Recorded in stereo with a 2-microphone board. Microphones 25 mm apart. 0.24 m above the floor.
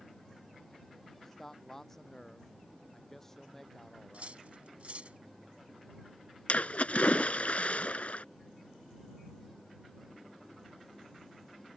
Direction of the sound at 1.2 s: 10° left (ahead or behind).